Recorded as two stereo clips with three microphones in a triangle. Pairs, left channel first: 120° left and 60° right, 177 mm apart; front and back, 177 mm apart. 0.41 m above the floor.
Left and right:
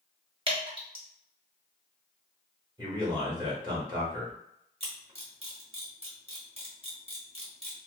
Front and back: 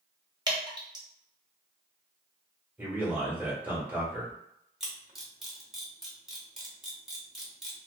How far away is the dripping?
About 1.0 m.